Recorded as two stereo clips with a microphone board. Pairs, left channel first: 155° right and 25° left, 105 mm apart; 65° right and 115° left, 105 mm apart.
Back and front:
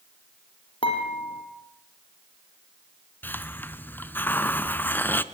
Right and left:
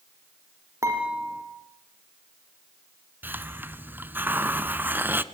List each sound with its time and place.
0.8 s dishes clattering: 175° left, 4 m
3.2 s a hiss: 160° left, 0.8 m